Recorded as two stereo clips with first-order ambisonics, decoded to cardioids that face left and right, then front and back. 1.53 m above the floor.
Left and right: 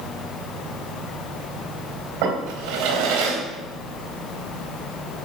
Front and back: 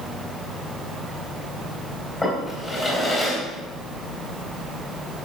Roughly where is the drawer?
Right.